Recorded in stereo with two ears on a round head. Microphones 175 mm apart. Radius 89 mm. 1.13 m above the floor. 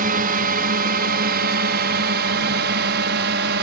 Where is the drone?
50° right (ahead or behind); by 3.6 s 60° right (ahead or behind).